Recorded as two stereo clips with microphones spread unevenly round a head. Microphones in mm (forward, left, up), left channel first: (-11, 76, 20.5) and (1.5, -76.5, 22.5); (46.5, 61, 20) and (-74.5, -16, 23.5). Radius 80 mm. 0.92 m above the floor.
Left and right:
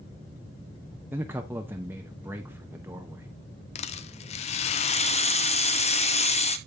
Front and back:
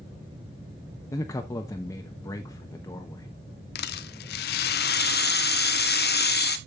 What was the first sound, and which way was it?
A man speaking, 15° right.